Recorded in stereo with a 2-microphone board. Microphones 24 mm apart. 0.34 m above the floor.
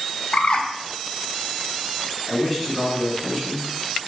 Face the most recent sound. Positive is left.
turn(degrees=-5)  # may be behind; listen again after turning